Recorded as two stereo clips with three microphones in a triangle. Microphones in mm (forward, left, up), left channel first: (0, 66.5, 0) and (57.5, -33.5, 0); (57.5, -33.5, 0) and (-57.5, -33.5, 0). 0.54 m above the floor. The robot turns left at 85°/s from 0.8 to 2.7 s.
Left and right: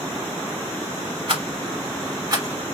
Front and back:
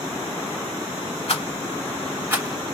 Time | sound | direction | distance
1.3 | a rattle | 20° right | 1.7 m